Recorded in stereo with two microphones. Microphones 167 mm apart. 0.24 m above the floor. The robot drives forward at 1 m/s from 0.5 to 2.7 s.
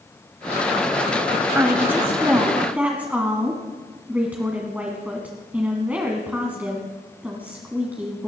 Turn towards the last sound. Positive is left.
turn(degrees=-10)  # may be behind; listen again after turning